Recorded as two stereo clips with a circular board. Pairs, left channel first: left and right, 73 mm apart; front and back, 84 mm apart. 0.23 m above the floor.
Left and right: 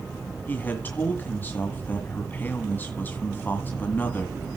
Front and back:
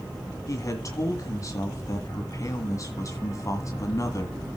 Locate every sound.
0.5 s a man speaking: 35° left, 1.7 m